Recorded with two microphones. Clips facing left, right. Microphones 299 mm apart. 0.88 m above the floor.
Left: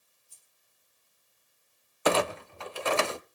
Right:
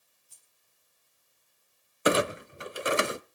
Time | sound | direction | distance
0.3 | keys jangling | 75° right (ahead or behind) | 4 m
2.0 | a clunk | 20° right (ahead or behind) | 0.5 m